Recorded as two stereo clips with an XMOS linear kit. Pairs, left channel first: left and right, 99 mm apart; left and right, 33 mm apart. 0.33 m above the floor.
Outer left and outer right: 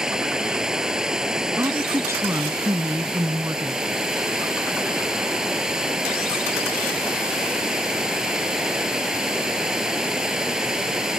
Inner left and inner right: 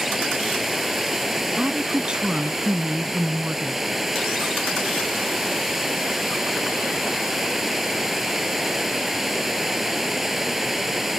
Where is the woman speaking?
30° right (ahead or behind).